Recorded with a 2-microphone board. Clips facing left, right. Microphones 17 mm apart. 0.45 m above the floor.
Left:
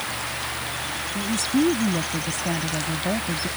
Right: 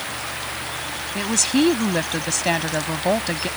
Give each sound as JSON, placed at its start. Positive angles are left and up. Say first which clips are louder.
{"t": 1.1, "sound": "a woman speaking", "louder": "right 3 dB", "side_deg": -55}